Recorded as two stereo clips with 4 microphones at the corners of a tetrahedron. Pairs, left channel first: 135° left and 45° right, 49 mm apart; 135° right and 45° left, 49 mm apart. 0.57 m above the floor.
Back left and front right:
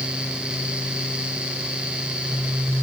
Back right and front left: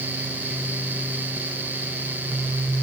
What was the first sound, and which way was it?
Only background noise.